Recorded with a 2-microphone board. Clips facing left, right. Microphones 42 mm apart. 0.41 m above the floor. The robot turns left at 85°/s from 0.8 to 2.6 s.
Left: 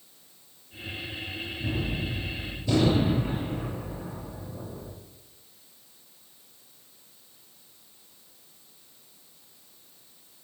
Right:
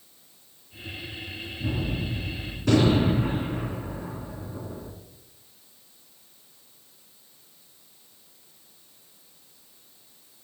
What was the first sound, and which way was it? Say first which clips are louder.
A gunshot: right 2 dB; 15° right (ahead or behind).